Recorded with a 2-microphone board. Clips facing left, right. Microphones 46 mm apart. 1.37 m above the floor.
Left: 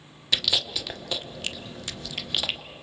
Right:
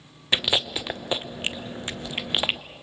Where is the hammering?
No hammering in this recording.